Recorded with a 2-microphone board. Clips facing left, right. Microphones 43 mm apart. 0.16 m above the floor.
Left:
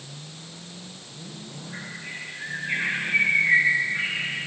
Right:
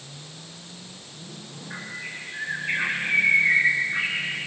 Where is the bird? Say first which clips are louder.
Right 2 dB; 75° right (ahead or behind), 4.5 m.